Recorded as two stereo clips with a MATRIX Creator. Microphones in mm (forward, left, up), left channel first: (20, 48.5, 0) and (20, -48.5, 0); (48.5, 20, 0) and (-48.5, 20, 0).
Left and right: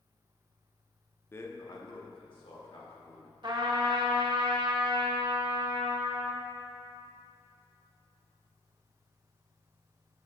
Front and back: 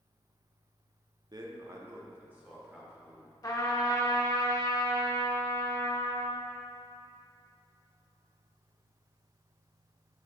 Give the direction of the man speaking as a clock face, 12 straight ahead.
7 o'clock.